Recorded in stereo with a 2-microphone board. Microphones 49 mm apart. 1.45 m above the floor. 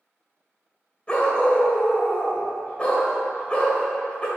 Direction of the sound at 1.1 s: 25° left (ahead or behind).